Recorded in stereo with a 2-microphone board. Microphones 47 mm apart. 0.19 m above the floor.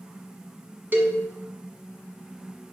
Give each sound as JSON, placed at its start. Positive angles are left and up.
{"t": 0.9, "sound": "a cowbell", "side_deg": -45, "distance_m": 1.3}